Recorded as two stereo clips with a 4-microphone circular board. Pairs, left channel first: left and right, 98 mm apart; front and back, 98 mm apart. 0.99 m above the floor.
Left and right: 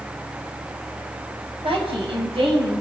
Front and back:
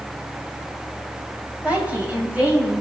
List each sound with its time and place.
1.6 s a woman speaking: 105° right, 6 m